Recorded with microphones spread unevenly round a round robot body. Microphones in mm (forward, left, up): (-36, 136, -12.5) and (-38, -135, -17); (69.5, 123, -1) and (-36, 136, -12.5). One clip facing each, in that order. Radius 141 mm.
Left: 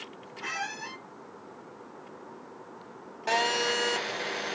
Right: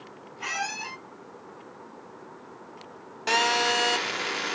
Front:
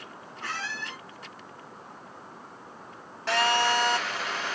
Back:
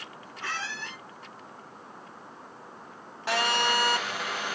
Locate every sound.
0.4 s a squeak: 130° right, 2.5 m
3.3 s a phone buzzing: 135° right, 0.5 m